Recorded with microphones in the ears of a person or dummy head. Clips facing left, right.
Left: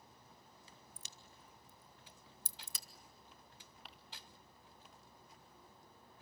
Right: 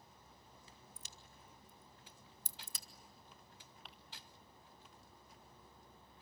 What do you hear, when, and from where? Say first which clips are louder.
1.0 s a crack: even; 70° left (ahead or behind), 1.2 m
3.9 s crumpling: left 1 dB; 5° left (ahead or behind), 0.8 m